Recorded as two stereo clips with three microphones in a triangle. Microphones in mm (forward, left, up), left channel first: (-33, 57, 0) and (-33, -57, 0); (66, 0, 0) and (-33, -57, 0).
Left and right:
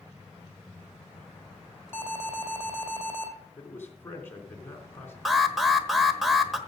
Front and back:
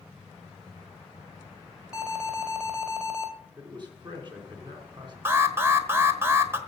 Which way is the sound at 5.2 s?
175° right.